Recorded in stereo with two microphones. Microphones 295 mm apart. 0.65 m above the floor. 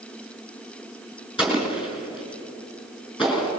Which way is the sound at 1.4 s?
15° left (ahead or behind).